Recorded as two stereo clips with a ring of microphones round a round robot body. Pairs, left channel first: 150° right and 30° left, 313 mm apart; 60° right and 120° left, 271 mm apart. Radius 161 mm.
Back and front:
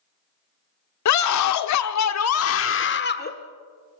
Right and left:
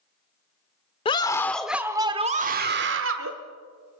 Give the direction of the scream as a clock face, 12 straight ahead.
4 o'clock.